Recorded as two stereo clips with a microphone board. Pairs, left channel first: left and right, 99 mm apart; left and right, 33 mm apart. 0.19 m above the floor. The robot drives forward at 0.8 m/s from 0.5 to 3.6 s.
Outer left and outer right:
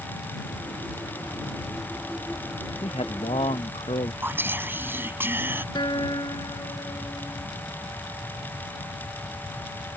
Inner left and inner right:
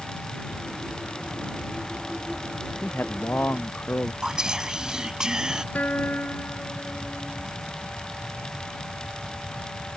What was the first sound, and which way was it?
A man speaking, 80° left.